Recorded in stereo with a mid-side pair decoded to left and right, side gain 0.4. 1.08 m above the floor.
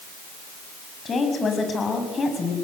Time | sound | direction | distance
1.1 | a woman speaking | 45° left | 6 m